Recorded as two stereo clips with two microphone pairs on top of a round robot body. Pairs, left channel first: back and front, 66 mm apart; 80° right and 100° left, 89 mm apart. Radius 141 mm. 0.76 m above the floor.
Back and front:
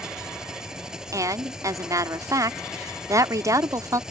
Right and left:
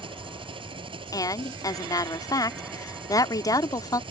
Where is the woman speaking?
30° right.